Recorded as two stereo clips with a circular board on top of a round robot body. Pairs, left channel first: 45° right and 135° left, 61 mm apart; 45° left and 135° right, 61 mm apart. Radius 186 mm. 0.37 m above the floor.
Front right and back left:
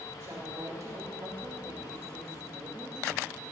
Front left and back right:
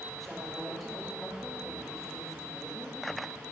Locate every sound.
0.2 s a woman speaking: 130° left, 2 m